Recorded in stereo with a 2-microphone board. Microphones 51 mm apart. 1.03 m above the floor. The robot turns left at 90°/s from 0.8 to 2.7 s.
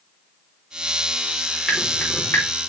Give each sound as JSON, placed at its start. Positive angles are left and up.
{"t": 1.7, "sound": "dripping", "side_deg": 5, "distance_m": 2.0}